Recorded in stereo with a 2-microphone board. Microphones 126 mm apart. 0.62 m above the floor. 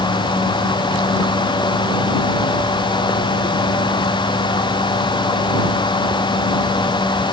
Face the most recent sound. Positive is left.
No sound to turn to.